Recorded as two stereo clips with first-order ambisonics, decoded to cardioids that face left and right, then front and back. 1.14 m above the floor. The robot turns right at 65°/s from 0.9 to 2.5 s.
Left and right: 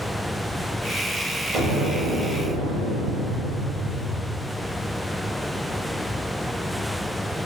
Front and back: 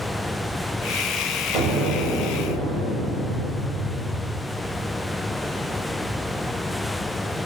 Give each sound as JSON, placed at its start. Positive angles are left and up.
{"t": 1.5, "sound": "an explosion", "azimuth_deg": -135, "distance_m": 2.0}